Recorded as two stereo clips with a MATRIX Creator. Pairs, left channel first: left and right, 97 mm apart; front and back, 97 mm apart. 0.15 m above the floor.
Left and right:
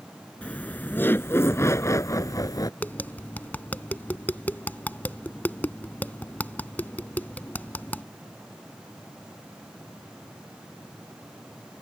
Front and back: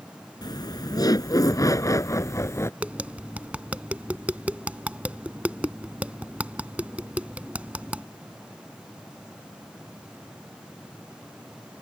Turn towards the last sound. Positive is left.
turn(degrees=130)